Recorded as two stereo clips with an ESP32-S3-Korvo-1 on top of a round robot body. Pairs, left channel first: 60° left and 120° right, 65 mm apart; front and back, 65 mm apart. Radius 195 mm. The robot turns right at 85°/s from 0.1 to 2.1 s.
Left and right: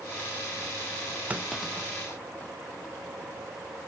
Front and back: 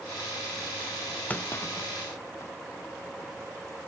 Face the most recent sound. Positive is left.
turn(degrees=10)